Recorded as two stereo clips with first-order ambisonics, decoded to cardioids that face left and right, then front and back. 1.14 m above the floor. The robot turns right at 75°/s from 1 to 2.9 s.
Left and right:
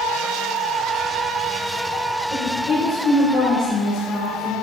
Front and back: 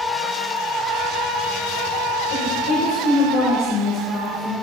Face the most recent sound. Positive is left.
turn(degrees=25)